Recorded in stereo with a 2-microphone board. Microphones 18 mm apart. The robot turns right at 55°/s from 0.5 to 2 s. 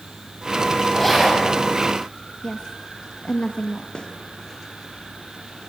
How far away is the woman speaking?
About 1.6 m.